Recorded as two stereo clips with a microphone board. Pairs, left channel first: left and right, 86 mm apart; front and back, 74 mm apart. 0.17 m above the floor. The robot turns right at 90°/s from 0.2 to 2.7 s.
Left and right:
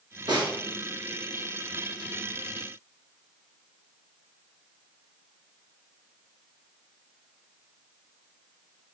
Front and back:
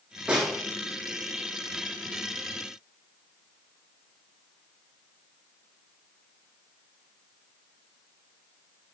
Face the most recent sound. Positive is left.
turn(degrees=110)